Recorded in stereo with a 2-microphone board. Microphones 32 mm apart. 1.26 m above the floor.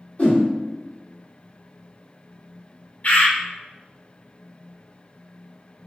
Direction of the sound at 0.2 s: 50° left (ahead or behind).